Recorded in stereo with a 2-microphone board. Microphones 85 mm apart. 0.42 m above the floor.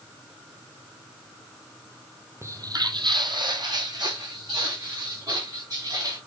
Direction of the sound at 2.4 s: 35° right (ahead or behind).